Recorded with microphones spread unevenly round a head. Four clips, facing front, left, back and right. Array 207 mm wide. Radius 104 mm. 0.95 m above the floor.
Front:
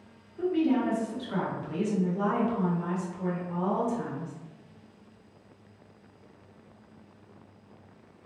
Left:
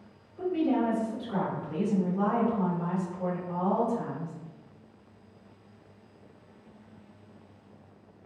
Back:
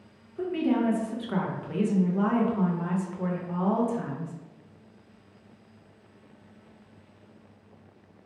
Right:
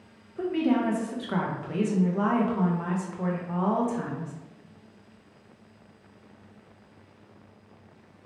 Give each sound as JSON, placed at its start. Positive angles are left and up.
{"t": 0.4, "sound": "a woman speaking", "azimuth_deg": -115, "distance_m": 0.8}